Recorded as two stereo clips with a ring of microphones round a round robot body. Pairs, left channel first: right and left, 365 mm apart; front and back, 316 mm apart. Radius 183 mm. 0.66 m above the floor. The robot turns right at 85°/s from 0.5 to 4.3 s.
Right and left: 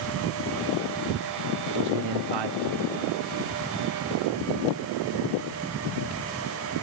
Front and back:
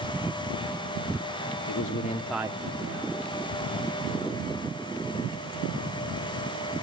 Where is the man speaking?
35° left, 1.0 m; by 3.1 s 155° left, 1.0 m.